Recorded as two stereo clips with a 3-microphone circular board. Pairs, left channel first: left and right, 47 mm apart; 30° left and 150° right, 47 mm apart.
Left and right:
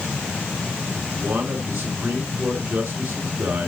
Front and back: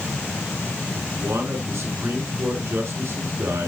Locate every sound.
1.1 s a man speaking: 120° right, 6 m